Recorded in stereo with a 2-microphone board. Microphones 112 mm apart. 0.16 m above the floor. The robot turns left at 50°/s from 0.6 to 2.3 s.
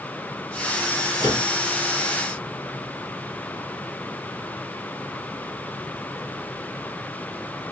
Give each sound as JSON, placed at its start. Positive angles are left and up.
{"t": 1.2, "sound": "a microwave", "side_deg": 40, "distance_m": 1.9}